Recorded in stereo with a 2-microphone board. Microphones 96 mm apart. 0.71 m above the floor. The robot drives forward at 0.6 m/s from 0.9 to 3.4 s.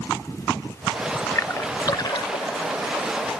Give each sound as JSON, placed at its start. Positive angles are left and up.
{"t": 1.4, "sound": "a splash", "side_deg": 30}